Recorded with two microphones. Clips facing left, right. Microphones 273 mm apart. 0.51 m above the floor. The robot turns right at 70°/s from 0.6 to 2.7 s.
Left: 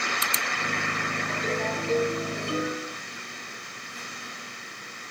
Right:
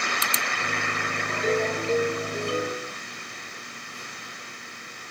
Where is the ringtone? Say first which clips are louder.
Right 6 dB; 140° right, 5 m; by 3.0 s 40° right, 5 m.